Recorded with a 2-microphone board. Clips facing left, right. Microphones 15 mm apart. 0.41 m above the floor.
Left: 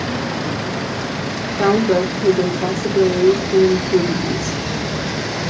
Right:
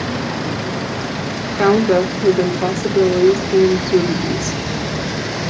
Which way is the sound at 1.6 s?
25° right (ahead or behind).